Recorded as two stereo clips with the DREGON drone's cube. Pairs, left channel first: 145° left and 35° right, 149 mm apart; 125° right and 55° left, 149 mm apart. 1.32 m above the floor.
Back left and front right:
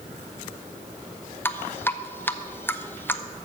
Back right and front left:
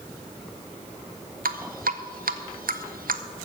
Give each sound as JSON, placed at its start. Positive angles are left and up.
{"t": 1.4, "sound": "dripping", "azimuth_deg": 70, "distance_m": 0.7}